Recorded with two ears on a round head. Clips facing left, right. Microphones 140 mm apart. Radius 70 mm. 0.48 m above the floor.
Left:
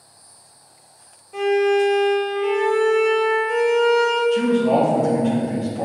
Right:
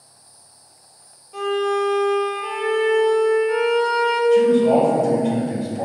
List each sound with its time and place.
1.3 s a violin: 10° left (ahead or behind), 1.9 m
4.3 s a man speaking: 15° right (ahead or behind), 1.9 m